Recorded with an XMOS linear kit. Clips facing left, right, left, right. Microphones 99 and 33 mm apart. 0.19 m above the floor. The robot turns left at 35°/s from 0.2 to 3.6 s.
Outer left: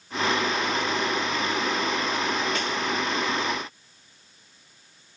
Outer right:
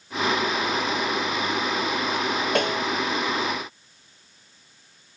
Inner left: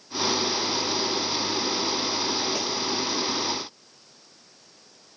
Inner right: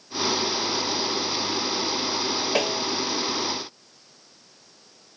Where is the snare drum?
55° right (ahead or behind); by 2.9 s 45° right (ahead or behind).